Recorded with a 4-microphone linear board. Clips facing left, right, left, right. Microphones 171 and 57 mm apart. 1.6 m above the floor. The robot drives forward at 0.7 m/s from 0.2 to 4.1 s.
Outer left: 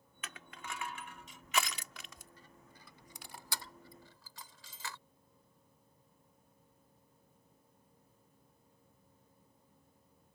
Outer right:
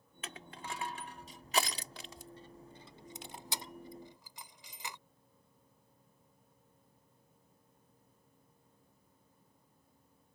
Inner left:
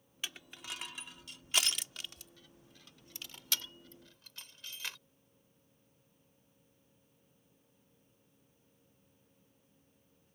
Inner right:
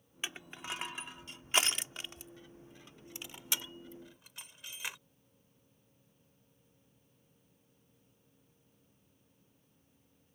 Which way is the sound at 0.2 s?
30° right (ahead or behind).